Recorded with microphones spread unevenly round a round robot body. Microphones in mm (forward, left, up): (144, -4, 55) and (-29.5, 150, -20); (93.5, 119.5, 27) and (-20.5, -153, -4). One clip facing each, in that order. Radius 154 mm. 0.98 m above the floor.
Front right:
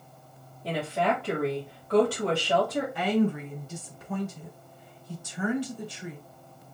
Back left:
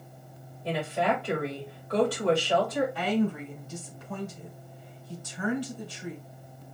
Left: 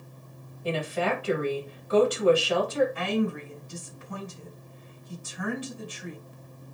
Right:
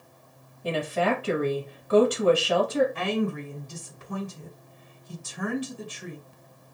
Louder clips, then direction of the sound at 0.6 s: Even, right 2 dB; 115° right.